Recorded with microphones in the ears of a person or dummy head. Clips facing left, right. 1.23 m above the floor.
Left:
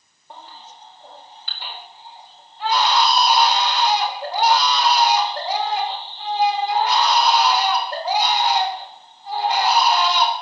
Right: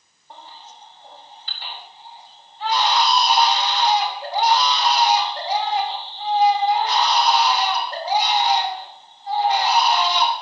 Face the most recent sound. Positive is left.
turn(degrees=60)  # may be behind; listen again after turning